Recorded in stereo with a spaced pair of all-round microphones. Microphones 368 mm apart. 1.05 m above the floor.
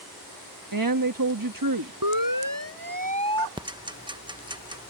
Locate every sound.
0.7 s a woman speaking: 65° right (ahead or behind)
2.0 s a siren: 65° right (ahead or behind); by 3.5 s 60° right (ahead or behind)
3.6 s ticking: 15° right (ahead or behind)